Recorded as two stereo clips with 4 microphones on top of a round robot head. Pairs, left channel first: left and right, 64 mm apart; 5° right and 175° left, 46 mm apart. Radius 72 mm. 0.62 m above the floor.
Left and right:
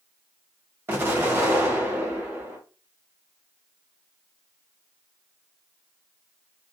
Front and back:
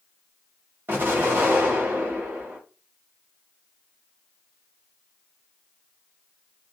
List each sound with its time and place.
0.9 s an explosion: 145° right, 1.2 m